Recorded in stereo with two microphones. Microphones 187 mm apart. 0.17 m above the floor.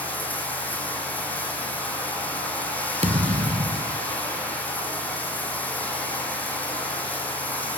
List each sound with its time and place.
0.0 s running water: 10° left (ahead or behind), 6 m
3.0 s a thud: 35° right (ahead or behind), 1.5 m